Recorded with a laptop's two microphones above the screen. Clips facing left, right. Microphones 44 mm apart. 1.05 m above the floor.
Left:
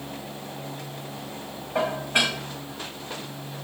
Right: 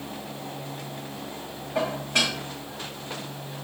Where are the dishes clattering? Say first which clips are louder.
Left 2 dB; 25° left (ahead or behind), 4.5 m.